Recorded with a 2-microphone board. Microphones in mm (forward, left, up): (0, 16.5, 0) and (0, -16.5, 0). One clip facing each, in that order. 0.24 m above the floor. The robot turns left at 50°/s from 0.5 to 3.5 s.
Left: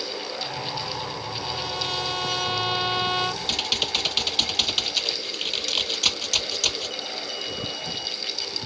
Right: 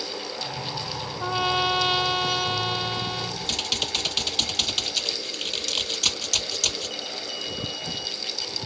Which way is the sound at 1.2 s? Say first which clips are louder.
Right 7 dB; 115° right.